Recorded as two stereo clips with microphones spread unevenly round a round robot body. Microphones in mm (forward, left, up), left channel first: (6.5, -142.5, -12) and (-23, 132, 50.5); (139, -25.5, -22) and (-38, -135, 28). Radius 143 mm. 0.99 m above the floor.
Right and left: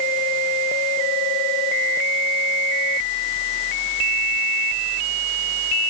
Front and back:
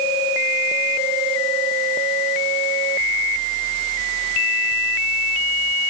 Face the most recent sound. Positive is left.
No sound to turn to.